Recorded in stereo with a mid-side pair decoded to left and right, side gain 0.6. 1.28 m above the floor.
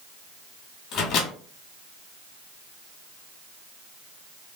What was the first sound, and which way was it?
A microwave, 65° left.